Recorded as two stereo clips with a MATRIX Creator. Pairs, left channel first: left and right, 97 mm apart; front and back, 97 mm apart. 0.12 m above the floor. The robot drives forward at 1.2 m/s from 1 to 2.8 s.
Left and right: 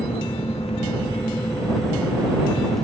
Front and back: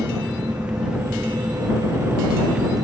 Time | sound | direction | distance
0.0 | an engine running | 100° left | ?